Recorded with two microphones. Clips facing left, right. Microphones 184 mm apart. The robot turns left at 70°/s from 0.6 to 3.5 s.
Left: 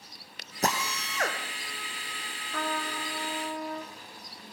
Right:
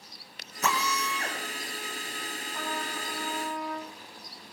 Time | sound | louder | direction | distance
0.6 | a drill | right 1 dB | 145° left | 3 m
2.5 | a trumpet | left 4 dB | 90° left | 5.5 m